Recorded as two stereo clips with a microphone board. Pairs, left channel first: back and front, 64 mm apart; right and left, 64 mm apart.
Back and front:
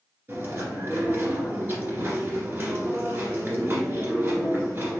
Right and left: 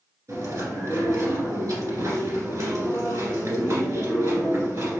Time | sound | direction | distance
0.3 | chewing | 60° left | 1.8 m